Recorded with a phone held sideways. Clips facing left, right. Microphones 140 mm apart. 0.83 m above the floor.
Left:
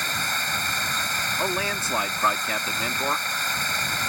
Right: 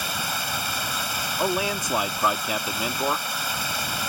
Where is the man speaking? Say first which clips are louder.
Right 3 dB; 15° right (ahead or behind).